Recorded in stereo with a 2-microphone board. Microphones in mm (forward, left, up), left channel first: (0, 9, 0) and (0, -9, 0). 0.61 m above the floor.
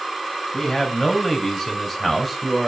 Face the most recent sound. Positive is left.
turn(degrees=-10)  # may be behind; listen again after turning